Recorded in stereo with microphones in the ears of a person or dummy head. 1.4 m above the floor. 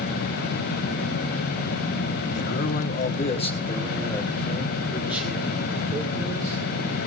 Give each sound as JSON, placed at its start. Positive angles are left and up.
{"t": 2.3, "sound": "a man speaking", "side_deg": 55, "distance_m": 1.5}